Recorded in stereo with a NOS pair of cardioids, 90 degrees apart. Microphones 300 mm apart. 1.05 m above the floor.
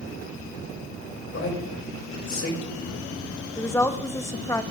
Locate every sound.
1.3 s a man speaking: 45° left, 6 m
3.6 s a woman speaking: 10° left, 1.0 m